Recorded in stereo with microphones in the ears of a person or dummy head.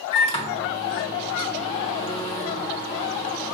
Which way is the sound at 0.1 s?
30° left (ahead or behind).